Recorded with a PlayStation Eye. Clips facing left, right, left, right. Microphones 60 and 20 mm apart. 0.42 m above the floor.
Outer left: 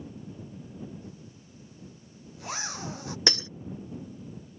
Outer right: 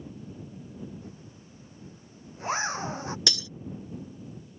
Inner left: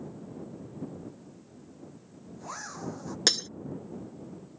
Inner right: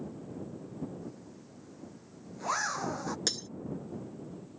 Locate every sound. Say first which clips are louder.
1.0 s a zipper: even, even; 35° right (ahead or behind)
3.3 s breaking glass: outer left 4 dB, inner left 10 dB; 40° left (ahead or behind)